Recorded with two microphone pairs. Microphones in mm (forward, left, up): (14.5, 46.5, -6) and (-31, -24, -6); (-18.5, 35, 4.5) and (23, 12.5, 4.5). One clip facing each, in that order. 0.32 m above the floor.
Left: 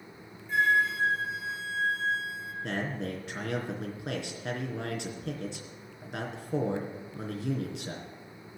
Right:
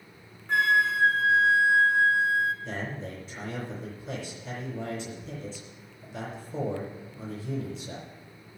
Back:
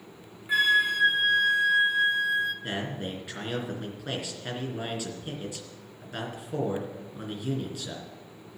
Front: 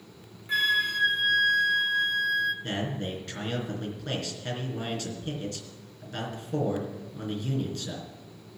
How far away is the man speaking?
About 3.5 m.